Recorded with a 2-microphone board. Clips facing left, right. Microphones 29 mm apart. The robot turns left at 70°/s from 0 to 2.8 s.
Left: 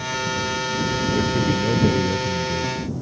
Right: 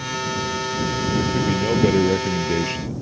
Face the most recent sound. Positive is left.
turn(degrees=-100)